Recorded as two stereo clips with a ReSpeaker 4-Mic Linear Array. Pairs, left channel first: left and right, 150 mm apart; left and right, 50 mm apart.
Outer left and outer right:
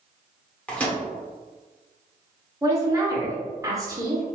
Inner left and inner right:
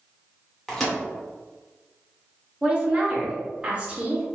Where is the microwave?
10° left (ahead or behind), 1.0 m.